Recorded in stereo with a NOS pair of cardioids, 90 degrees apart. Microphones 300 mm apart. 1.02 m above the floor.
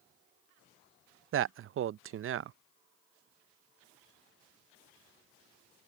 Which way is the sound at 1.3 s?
45° right.